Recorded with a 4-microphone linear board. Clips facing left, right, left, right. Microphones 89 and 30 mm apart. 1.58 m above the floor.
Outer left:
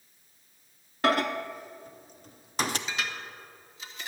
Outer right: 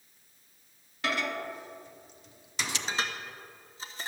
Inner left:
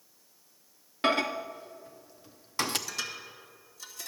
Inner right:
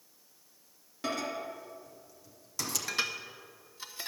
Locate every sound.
1.0 s a microwave: 45° left (ahead or behind), 0.6 m
2.9 s dishes clattering: 35° right (ahead or behind), 1.1 m